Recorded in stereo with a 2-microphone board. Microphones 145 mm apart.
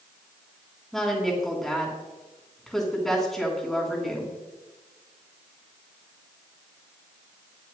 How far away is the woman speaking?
About 3.5 m.